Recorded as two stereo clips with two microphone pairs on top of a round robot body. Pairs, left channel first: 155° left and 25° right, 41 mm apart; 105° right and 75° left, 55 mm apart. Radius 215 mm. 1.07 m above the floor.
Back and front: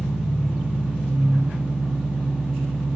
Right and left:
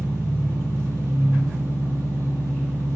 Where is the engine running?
60° left, 4 m.